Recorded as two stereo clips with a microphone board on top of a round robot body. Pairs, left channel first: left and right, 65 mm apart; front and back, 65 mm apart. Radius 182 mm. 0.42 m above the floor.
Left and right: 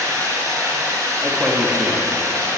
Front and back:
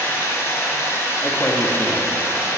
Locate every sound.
0.0 s running water: 55° right, 1.9 m
1.2 s a man speaking: 40° right, 1.4 m